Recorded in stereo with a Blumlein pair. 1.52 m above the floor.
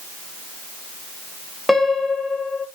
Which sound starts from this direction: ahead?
A piano, at 1.7 s.